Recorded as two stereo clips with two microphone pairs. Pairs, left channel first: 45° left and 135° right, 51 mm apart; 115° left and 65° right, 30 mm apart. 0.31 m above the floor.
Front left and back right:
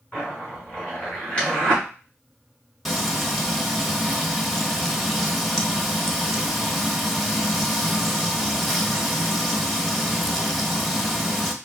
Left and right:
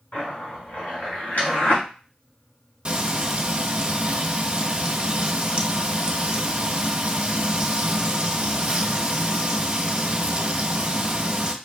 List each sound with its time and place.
0.1 s a zipper: 115° left, 2 m
2.9 s frying: 45° right, 0.7 m